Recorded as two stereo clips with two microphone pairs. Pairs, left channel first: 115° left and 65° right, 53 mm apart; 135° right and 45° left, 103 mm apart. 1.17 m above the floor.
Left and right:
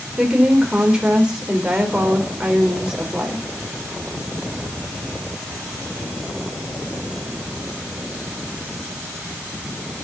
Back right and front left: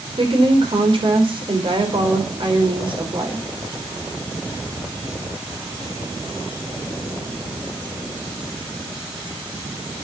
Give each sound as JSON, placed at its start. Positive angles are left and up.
{"t": 0.2, "sound": "a woman speaking", "azimuth_deg": 10, "distance_m": 4.0}